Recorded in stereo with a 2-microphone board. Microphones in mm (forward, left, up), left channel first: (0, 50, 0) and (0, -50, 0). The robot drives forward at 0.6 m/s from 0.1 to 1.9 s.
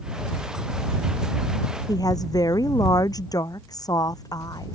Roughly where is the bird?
No bird in this recording.